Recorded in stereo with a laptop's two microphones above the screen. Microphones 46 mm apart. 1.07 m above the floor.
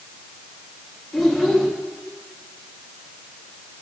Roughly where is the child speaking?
Centre.